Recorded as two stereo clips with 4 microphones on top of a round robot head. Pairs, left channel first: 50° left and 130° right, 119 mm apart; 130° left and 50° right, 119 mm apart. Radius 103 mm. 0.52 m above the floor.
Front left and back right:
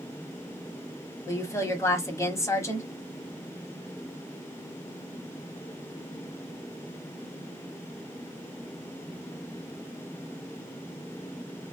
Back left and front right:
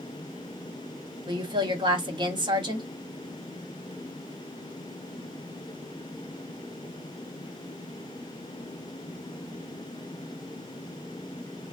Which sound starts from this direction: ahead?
A woman speaking, at 1.3 s.